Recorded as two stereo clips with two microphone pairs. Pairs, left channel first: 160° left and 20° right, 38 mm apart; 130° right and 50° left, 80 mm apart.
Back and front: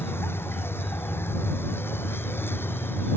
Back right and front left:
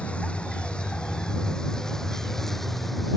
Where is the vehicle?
155° left; by 3.2 s 140° left.